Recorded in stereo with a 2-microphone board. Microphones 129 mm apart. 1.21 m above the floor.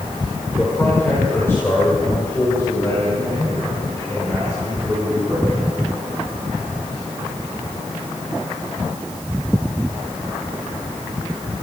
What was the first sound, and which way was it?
A man speaking, 15° left (ahead or behind).